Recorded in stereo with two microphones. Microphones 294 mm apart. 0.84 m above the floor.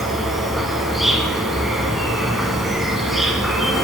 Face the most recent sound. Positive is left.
turn(degrees=0)  # may be behind; listen again after turning